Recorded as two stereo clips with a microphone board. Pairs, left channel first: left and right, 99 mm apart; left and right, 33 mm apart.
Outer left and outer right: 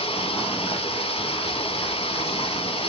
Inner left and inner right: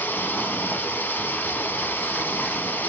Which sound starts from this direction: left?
Running water, at 0.0 s.